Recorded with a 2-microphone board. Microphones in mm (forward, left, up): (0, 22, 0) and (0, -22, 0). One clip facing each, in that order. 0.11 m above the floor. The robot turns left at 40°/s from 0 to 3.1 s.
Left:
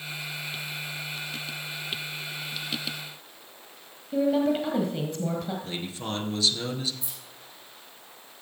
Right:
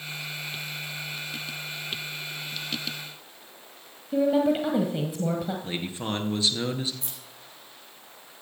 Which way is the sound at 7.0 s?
50° right (ahead or behind).